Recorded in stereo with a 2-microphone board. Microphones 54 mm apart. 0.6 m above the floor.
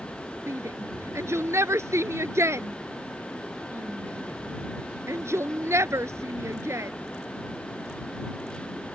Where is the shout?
65° right (ahead or behind).